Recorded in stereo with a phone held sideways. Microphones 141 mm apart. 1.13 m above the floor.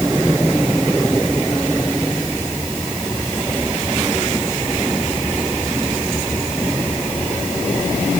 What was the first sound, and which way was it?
Only background noise.